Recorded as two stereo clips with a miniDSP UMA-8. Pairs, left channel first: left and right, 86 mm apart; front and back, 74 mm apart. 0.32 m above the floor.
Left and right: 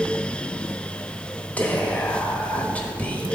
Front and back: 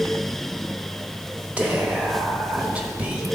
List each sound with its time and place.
1.6 s whispering: 135° left, 1.0 m